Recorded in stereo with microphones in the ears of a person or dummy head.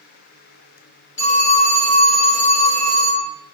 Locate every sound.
1.2 s a phone ringing: 40° left (ahead or behind), 1.1 m